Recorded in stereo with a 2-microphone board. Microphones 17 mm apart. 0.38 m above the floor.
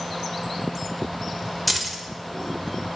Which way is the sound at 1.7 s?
Centre (ahead or behind).